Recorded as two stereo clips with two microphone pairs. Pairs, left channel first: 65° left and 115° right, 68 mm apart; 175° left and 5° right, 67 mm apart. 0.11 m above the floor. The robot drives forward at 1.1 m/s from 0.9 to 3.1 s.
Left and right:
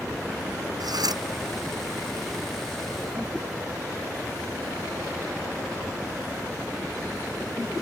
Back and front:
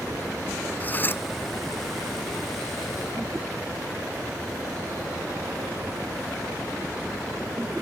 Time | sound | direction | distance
0.8 | cutlery clinking | 120° right | ?